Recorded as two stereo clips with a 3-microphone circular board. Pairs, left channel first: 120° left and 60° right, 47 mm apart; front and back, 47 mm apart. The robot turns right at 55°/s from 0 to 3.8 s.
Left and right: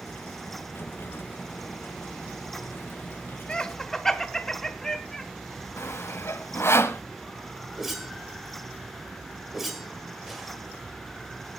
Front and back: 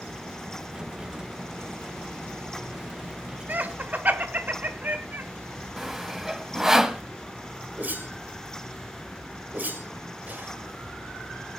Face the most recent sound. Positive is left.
turn(degrees=-145)